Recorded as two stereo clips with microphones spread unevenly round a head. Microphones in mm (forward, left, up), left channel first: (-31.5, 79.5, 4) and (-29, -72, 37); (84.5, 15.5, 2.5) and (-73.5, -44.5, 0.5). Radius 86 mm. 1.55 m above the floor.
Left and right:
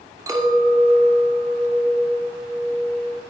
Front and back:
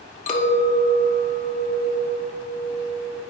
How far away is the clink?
About 2.5 m.